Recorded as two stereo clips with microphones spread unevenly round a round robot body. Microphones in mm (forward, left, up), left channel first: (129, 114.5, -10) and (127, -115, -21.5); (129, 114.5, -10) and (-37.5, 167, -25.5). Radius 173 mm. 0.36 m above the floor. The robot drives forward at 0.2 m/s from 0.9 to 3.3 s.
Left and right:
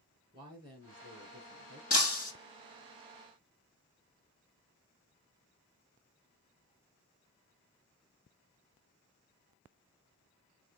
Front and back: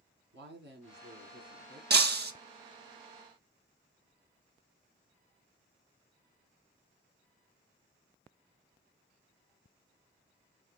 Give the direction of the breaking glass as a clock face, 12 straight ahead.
7 o'clock.